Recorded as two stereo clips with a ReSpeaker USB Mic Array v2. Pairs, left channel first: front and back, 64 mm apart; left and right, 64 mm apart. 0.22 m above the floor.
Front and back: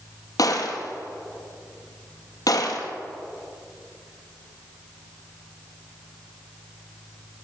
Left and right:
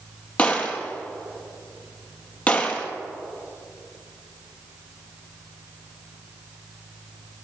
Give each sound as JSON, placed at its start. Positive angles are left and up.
{"t": 0.4, "sound": "a gunshot", "azimuth_deg": 20, "distance_m": 2.0}